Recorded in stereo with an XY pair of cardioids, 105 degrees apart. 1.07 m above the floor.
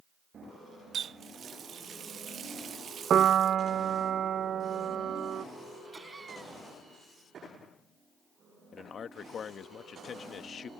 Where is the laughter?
25° right.